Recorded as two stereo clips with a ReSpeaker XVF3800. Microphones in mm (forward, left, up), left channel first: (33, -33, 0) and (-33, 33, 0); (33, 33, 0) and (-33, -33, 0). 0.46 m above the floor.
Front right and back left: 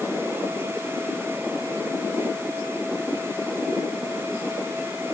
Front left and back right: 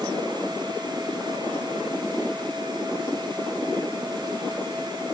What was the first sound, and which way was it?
Only background noise.